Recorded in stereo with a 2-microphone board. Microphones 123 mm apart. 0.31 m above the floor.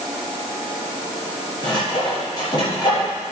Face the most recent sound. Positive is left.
turn(degrees=40)  # may be behind; listen again after turning